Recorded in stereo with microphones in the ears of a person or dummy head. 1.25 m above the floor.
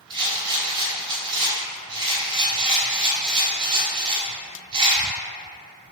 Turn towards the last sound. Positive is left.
turn(degrees=-25)  # may be behind; listen again after turning